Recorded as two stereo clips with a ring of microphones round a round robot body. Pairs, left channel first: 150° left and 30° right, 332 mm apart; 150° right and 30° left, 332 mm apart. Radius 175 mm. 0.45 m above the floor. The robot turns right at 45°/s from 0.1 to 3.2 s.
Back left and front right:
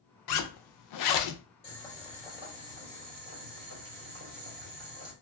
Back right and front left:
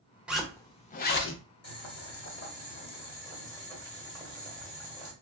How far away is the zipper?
About 0.6 m.